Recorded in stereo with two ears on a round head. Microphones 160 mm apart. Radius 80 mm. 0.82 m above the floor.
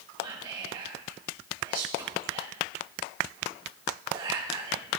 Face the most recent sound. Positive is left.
turn(degrees=-25)  # may be behind; listen again after turning